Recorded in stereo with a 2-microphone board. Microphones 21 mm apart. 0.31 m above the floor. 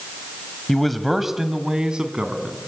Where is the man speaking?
10° left (ahead or behind), 1.8 m; by 2.6 s 50° right (ahead or behind), 3 m.